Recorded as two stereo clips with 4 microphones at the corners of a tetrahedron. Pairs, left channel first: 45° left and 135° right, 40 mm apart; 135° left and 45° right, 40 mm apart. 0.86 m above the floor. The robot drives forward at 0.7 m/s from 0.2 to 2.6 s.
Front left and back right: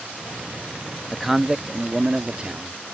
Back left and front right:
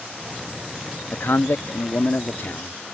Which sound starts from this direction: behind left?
A man speaking, at 1.1 s.